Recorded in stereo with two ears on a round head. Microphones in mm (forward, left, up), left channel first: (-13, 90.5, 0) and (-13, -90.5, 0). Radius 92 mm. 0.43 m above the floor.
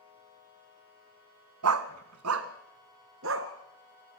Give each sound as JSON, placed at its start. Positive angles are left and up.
{"t": 1.6, "sound": "a dog barking", "side_deg": -90, "distance_m": 1.1}